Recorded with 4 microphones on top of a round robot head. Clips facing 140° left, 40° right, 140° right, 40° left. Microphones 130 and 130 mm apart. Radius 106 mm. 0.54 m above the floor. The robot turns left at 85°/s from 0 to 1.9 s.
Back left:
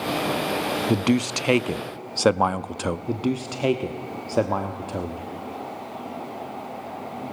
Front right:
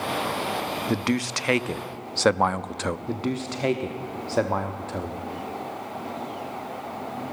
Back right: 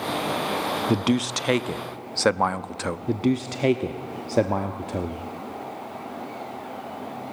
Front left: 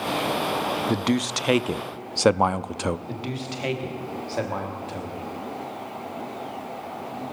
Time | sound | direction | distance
0.9 | a man speaking | 170° left | 0.6 m
3.1 | a man speaking | 150° right | 1.2 m